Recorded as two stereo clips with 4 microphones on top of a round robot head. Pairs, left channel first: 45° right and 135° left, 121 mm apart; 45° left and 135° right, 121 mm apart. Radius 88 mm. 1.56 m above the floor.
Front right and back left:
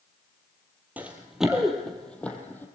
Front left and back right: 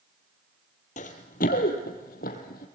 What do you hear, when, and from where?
1.0 s running footsteps: 60° left, 2 m; by 2.7 s 35° left, 3 m